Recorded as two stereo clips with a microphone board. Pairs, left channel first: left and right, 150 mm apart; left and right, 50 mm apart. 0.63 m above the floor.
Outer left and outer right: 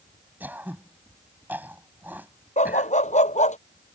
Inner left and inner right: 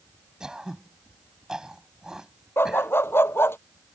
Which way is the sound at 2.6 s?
50° left (ahead or behind).